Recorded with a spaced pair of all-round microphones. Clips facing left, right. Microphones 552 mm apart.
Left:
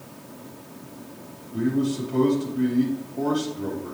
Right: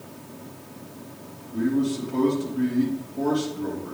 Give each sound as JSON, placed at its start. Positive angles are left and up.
{"t": 1.5, "sound": "a man speaking", "side_deg": 5, "distance_m": 3.5}